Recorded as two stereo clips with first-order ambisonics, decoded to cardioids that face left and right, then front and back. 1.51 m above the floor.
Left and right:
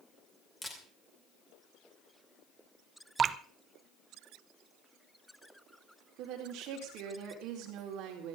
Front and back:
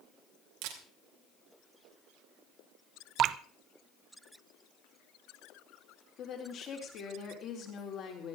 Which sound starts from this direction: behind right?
Dripping, at 3.2 s.